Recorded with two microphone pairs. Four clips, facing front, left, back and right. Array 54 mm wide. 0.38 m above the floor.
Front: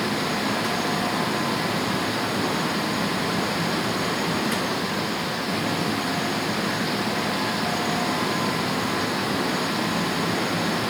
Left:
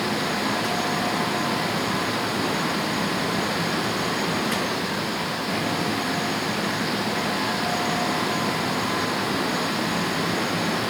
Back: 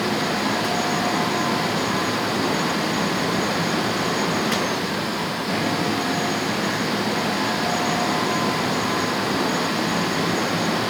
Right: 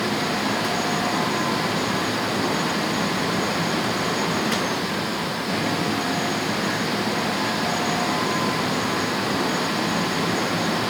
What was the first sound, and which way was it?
Only background noise.